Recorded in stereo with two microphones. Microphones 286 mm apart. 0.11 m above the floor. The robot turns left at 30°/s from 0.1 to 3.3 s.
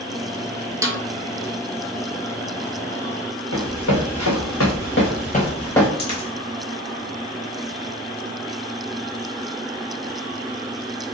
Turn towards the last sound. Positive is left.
turn(degrees=70)  # may be behind; listen again after turning